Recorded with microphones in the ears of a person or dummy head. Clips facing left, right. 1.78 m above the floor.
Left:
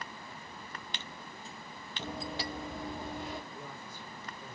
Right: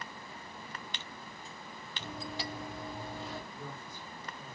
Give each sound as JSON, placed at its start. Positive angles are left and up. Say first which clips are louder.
{"t": 2.0, "sound": "running footsteps", "louder": "left 3 dB", "side_deg": 30, "distance_m": 2.0}
{"t": 3.5, "sound": "a man speaking", "louder": "right 1 dB", "side_deg": 20, "distance_m": 2.0}